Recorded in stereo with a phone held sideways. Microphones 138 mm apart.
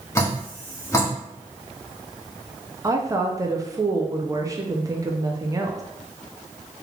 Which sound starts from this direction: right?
A woman speaking, at 2.8 s.